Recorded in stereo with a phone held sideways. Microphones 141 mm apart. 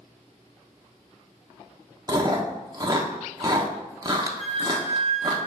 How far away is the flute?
About 1.3 m.